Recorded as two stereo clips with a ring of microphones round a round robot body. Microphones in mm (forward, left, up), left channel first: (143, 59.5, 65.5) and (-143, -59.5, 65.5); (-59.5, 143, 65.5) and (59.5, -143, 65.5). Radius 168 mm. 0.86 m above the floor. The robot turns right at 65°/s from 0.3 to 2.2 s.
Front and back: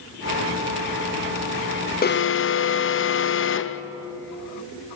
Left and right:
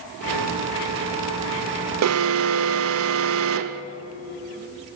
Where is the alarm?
35° right, 0.7 m; by 3.8 s 25° right, 0.7 m.